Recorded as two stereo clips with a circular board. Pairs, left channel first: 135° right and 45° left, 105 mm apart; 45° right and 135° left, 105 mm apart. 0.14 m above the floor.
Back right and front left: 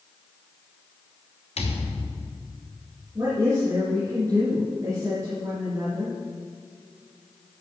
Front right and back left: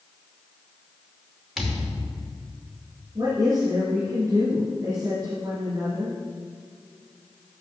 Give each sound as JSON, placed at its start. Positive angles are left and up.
{"t": 1.6, "sound": "a thud", "azimuth_deg": -140, "distance_m": 3.0}
{"t": 3.1, "sound": "a woman speaking", "azimuth_deg": 95, "distance_m": 2.5}